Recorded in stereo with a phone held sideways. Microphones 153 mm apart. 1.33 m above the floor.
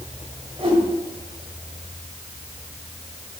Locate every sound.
0.6 s a whoosh: 35° right (ahead or behind), 2 m